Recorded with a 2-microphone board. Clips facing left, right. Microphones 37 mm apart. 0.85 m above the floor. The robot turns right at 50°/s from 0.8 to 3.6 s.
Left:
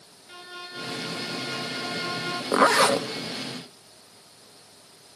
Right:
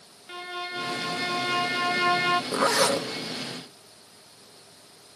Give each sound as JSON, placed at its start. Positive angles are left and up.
{"t": 0.3, "sound": "a violin", "azimuth_deg": -140, "distance_m": 0.8}
{"t": 2.5, "sound": "a zipper", "side_deg": 35, "distance_m": 0.8}